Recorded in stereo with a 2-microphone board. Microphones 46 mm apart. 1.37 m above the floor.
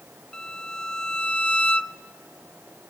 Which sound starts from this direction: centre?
A violin, at 0.3 s.